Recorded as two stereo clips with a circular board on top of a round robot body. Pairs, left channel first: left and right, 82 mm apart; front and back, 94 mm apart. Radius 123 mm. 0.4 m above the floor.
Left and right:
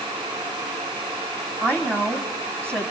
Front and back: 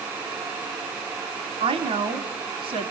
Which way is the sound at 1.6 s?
160° right.